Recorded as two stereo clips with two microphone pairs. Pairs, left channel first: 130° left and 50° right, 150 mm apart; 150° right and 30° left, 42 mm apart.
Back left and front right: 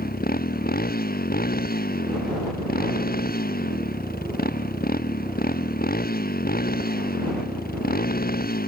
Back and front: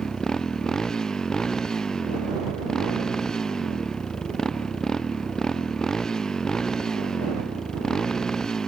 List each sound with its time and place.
0.0 s a motorcycle: 140° left